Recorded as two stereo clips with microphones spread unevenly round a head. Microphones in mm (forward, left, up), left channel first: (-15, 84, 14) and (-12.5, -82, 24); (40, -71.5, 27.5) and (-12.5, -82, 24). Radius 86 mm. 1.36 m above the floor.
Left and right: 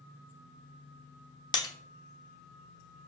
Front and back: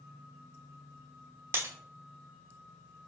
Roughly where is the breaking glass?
Behind left.